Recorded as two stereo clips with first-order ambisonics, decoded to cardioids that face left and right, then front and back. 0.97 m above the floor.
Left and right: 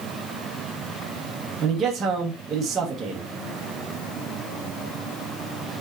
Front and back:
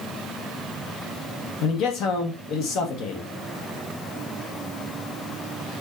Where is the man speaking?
25° right, 1.1 m.